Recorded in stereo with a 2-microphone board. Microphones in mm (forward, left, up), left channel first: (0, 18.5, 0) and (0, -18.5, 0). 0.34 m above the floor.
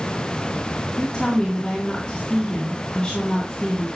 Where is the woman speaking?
20° left (ahead or behind), 3.5 m.